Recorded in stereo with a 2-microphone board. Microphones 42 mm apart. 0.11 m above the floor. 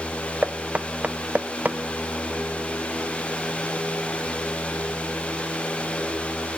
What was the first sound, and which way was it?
Knocking, 35° right (ahead or behind).